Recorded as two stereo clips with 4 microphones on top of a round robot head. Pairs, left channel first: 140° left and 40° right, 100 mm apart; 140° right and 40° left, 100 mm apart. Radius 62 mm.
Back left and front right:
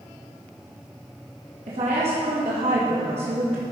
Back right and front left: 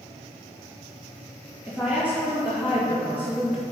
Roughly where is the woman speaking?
Ahead right.